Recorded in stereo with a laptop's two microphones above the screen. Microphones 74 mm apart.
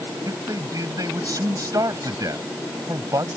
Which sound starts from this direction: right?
A man speaking, at 0.2 s.